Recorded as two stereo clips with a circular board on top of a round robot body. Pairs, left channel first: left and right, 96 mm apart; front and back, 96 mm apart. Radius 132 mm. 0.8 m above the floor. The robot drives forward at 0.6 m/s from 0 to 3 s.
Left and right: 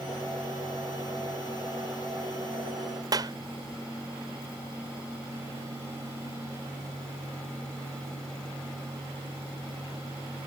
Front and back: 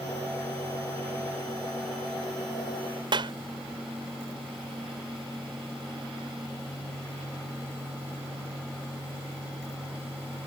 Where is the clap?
140° right.